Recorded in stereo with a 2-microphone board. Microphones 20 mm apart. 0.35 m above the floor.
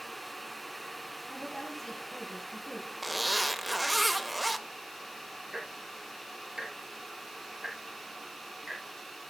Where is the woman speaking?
5° left (ahead or behind), 4 m.